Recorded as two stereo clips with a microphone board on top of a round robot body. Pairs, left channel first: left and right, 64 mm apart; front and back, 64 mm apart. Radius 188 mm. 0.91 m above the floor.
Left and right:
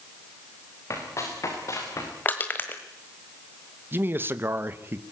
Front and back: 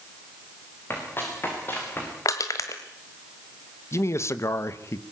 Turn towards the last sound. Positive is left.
turn(degrees=-35)